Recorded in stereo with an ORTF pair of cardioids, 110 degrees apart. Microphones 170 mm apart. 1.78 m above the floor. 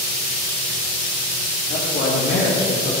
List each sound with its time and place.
1.7 s a man speaking: 60° left, 2.5 m; by 2.9 s 65° left, 1.7 m